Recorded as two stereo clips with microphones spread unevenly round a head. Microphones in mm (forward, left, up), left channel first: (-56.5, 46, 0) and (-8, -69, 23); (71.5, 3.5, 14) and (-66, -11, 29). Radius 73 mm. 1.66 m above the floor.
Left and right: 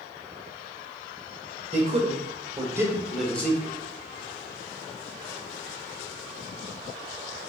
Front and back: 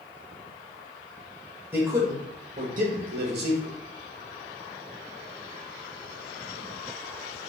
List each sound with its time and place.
1.7 s a man speaking: 100° right, 1.6 m; by 3.8 s straight behind, 1.4 m